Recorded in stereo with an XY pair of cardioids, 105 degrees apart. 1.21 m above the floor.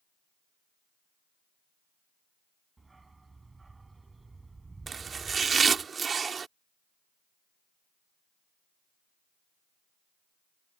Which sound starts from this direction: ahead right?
Chopping, at 4.9 s.